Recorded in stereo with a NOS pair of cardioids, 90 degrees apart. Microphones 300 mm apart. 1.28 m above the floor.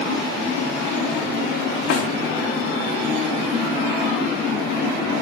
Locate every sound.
1.9 s a snare drum: 55° left, 0.5 m